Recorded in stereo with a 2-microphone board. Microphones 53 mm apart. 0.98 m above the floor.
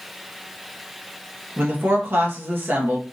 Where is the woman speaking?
45° right (ahead or behind), 1.0 m.